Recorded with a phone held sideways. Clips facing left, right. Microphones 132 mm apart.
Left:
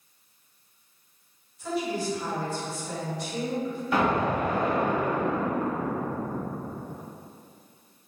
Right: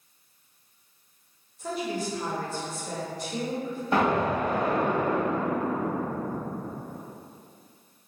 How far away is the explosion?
About 1.0 m.